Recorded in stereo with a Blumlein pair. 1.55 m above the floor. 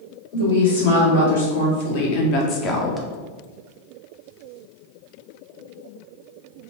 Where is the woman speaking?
65° left, 1.8 m; by 3.1 s 5° right, 0.5 m.